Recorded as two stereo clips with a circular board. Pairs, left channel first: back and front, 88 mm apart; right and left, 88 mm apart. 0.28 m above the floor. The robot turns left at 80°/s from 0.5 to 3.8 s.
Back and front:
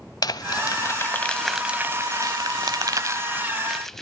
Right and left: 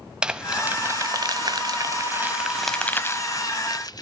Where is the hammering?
No hammering in this recording.